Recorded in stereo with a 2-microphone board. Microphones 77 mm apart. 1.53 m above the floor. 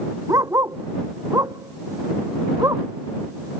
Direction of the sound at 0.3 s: 50° right (ahead or behind).